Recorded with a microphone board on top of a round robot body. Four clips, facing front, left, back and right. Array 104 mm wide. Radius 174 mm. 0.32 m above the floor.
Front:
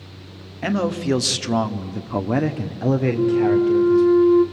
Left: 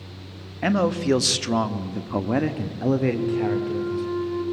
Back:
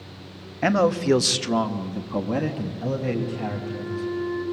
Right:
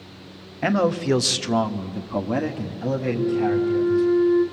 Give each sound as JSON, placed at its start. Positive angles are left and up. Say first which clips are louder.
{"t": 0.6, "sound": "a man speaking", "louder": "right 1 dB, back 2 dB", "azimuth_deg": -160, "distance_m": 1.4}
{"t": 3.1, "sound": "a flute", "louder": "right 2 dB, front 12 dB", "azimuth_deg": -5, "distance_m": 1.9}